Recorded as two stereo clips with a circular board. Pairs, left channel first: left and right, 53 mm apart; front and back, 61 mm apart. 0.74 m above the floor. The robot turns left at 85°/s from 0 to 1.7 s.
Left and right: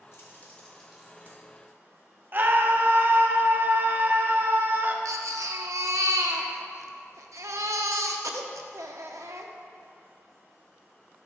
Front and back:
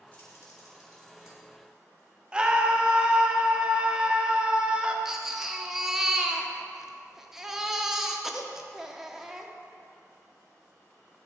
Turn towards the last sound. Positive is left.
turn(degrees=-95)